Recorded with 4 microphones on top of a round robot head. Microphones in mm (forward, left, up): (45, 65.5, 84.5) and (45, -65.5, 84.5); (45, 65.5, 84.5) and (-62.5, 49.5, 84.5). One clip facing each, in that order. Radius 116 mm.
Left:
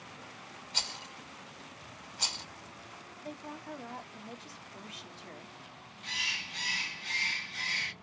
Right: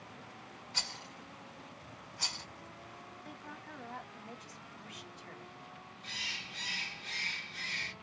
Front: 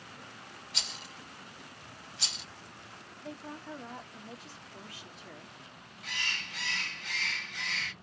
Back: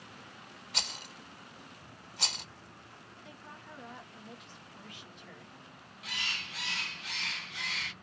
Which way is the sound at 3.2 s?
45° left.